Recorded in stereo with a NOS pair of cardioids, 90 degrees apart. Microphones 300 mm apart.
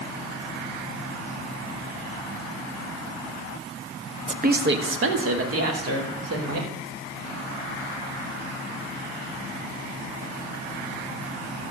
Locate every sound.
4.3 s a woman speaking: 25° right, 0.9 m; by 6.7 s 60° right, 4 m